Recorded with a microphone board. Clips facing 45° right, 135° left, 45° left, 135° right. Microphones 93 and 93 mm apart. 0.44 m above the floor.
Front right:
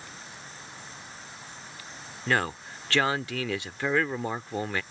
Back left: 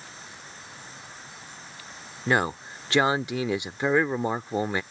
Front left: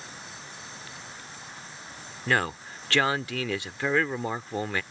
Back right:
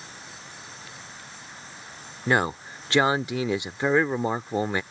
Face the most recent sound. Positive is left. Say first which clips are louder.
# back left 3 dB, back right 3 dB
turn(degrees=180)